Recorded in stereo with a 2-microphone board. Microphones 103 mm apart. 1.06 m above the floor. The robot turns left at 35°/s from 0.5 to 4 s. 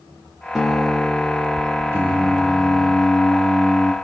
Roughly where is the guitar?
Behind.